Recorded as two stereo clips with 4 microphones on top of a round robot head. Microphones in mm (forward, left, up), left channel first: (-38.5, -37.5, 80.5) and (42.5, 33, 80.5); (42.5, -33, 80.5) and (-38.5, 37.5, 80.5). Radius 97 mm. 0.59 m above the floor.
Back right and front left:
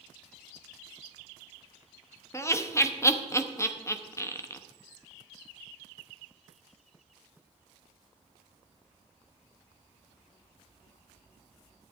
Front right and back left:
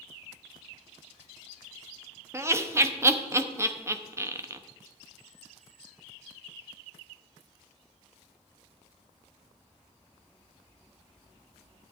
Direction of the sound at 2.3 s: Straight behind.